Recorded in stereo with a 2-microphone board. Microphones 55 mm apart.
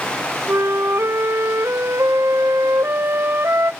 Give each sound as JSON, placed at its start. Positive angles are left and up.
{"t": 0.5, "sound": "a flute", "side_deg": -50, "distance_m": 0.6}